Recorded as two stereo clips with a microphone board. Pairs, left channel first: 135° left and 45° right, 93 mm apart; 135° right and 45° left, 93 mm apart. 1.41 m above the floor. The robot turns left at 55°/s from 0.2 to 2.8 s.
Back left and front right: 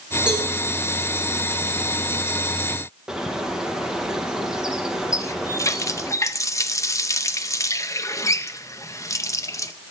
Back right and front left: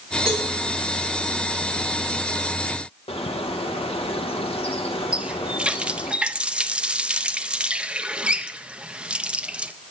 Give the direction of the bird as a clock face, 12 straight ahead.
4 o'clock.